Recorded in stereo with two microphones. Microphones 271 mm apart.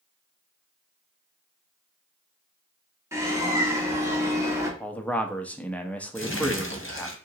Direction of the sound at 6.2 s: 45° left (ahead or behind).